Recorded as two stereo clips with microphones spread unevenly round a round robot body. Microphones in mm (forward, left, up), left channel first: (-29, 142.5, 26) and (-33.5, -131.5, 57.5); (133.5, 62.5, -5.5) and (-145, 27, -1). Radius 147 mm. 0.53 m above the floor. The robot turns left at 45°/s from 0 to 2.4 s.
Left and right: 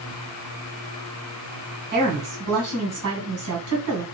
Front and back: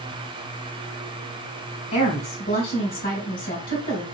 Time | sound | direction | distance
1.9 | a woman speaking | 30° right | 2 m